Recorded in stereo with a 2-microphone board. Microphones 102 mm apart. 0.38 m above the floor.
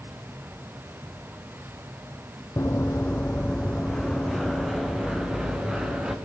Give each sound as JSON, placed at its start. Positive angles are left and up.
{"t": 2.6, "sound": "running footsteps", "side_deg": 30, "distance_m": 1.0}